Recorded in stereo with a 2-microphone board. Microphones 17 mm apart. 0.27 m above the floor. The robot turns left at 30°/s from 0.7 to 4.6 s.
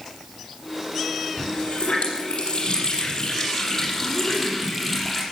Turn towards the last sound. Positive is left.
turn(degrees=10)